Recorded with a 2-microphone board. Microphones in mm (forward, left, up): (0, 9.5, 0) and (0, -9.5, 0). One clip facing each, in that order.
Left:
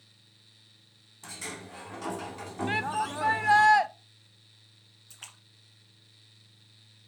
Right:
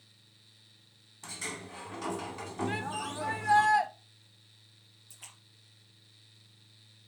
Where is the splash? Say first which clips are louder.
Left 4 dB; 45° left (ahead or behind), 2 m.